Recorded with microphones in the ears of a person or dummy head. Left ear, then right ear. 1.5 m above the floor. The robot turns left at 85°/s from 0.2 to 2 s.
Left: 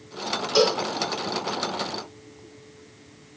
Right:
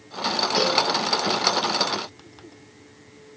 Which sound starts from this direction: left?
A cowbell, at 0.6 s.